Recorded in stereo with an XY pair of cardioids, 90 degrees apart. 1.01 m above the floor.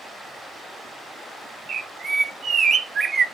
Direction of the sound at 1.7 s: 50° right.